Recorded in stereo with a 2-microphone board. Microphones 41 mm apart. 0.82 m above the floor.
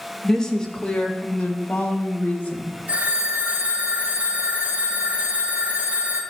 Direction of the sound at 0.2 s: 10° left (ahead or behind).